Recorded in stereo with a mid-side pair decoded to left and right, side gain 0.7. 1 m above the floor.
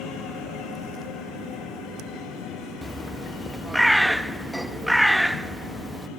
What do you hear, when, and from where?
2.8 s a bird: straight ahead, 0.8 m